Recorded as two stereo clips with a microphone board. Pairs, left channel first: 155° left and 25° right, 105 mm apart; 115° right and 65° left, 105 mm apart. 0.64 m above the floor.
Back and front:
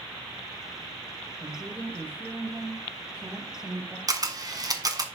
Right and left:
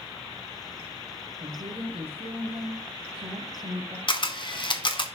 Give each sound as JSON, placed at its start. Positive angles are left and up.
{"t": 1.4, "sound": "a woman speaking", "azimuth_deg": 55, "distance_m": 2.5}
{"t": 4.1, "sound": "a camera shutter", "azimuth_deg": -75, "distance_m": 1.3}